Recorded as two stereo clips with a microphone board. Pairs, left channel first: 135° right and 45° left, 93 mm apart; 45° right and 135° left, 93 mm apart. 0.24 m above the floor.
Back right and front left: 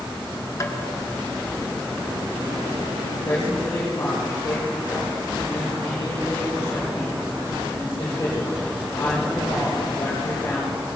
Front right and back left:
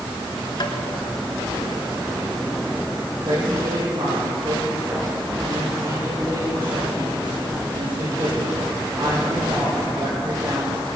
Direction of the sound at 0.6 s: 80° right.